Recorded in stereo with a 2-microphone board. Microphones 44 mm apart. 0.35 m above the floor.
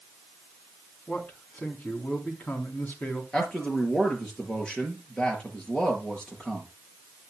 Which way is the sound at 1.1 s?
35° left (ahead or behind).